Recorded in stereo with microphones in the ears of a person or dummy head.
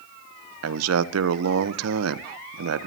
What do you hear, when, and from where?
0.6 s a man speaking: 80° right, 0.7 m